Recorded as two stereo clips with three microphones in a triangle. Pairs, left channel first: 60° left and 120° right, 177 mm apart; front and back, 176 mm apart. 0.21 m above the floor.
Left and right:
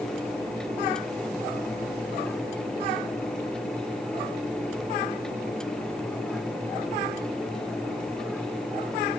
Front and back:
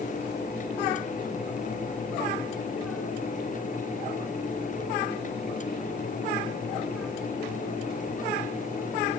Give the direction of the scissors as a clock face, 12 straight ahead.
No scissors in this recording.